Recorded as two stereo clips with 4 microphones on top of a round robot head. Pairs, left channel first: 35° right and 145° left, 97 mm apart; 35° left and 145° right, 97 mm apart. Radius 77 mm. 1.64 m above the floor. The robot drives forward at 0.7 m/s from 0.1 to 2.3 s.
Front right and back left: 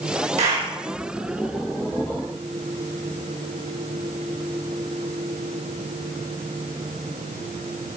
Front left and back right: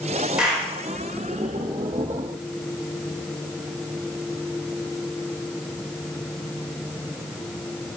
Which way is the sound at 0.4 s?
135° left.